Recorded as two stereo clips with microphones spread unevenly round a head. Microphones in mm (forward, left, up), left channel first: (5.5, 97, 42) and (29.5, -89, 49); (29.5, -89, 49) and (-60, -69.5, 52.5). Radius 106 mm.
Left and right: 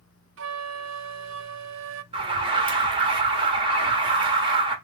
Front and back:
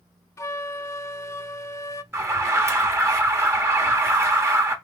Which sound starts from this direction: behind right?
An alarm, at 2.1 s.